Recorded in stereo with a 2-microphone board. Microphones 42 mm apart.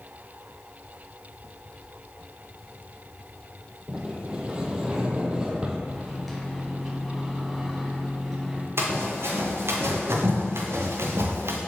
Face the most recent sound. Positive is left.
turn(degrees=-80)